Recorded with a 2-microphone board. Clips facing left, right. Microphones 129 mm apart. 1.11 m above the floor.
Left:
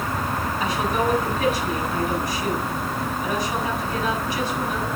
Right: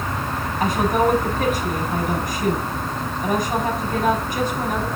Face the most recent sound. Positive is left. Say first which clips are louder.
# right 6 dB
turn(degrees=-50)  # may be behind; listen again after turning